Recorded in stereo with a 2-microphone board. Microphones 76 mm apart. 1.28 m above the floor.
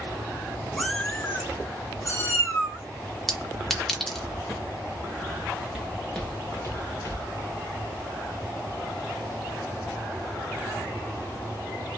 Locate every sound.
0.8 s a cat meowing: centre (ahead or behind), 0.6 m; by 2.8 s 40° left (ahead or behind), 1.6 m
3.3 s a clink: centre (ahead or behind), 0.7 m
5.7 s footsteps: 10° right (ahead or behind), 1.3 m; by 7.3 s 50° left (ahead or behind), 1.9 m